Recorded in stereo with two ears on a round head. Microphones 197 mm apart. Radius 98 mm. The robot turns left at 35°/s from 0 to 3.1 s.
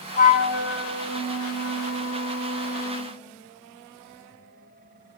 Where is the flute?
145° left, 3.5 m; by 3.2 s 40° left, 3.5 m.